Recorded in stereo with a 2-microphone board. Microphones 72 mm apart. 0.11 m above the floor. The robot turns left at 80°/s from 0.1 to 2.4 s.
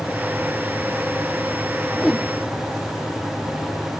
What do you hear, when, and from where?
1.9 s a whoosh: 10° left (ahead or behind); by 2.3 s 15° right (ahead or behind)